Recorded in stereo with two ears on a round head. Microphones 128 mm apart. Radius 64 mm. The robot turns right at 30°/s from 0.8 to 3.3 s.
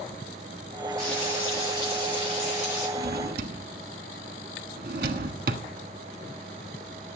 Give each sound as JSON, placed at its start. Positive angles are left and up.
{"t": 1.0, "sound": "frying", "azimuth_deg": 5, "distance_m": 8.5}
{"t": 3.0, "sound": "a drawer", "side_deg": -75, "distance_m": 1.3}